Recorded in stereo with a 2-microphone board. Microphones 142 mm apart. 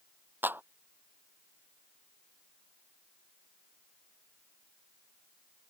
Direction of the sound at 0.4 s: 15° right (ahead or behind).